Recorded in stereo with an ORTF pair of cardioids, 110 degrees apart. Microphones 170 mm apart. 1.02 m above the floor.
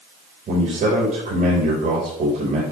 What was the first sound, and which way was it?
A man speaking, 55° right.